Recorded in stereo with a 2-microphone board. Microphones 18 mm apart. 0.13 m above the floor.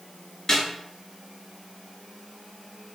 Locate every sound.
0.5 s a snare drum: 25° left (ahead or behind), 1.5 m